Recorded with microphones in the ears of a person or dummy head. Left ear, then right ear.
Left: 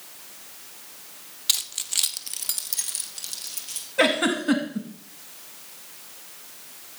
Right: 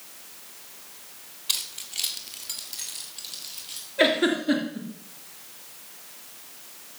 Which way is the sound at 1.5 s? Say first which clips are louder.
Left 4 dB; 30° left (ahead or behind).